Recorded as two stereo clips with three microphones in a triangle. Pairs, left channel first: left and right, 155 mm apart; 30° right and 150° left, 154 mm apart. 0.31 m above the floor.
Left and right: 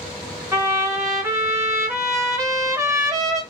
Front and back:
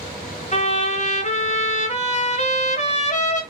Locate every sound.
0.5 s a trumpet: 25° right, 1.1 m